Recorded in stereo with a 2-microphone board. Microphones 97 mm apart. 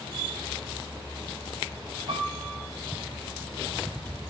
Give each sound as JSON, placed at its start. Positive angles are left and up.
{"t": 2.1, "sound": "a piano", "side_deg": -65, "distance_m": 8.0}